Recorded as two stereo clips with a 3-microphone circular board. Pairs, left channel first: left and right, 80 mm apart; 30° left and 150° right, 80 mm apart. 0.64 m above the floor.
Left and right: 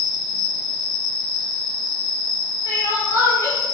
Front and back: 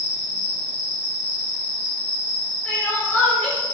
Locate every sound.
0.0 s an insect: 70° left, 1.7 m
2.6 s crying: 90° left, 1.4 m